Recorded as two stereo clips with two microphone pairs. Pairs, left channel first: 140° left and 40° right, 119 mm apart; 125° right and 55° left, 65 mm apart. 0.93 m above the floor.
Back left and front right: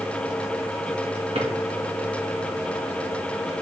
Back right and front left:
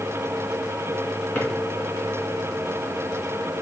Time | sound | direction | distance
1.4 | a drawer | 65° right | 2.5 m